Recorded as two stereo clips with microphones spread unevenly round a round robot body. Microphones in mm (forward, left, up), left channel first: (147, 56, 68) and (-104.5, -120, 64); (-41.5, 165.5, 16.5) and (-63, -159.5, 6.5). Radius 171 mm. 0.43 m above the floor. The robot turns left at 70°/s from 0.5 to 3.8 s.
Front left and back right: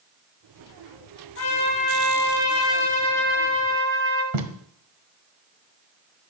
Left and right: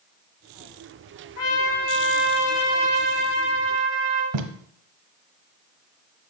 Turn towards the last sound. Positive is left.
turn(degrees=-130)